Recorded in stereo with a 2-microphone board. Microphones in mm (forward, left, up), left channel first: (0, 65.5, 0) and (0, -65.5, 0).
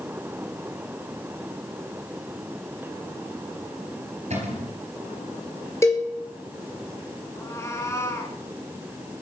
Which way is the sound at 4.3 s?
60° right (ahead or behind).